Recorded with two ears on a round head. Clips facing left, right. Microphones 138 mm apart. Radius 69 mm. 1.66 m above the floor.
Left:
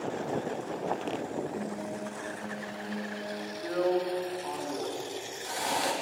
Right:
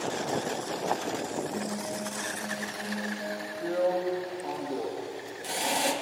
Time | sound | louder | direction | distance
1.5 | a guitar | right 2 dB | 35° right (ahead or behind) | 4 m
3.6 | a drill | right 1 dB | 30° right (ahead or behind) | 3.5 m